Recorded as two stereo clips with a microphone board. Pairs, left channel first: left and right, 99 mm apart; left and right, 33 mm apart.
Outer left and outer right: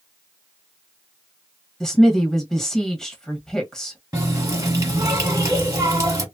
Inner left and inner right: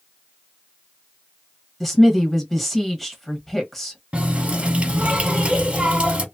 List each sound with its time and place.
1.8 s a woman speaking: 5° left (ahead or behind), 1.3 m
4.1 s a running tap: 35° right (ahead or behind), 1.2 m